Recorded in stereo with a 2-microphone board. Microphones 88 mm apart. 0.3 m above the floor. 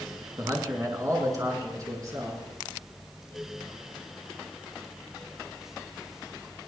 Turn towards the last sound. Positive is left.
turn(degrees=-40)  # may be behind; listen again after turning